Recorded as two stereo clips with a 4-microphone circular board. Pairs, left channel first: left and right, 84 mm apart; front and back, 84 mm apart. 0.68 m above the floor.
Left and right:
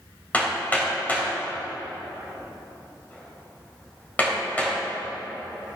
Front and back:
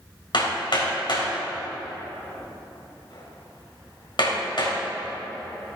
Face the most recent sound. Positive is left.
turn(degrees=20)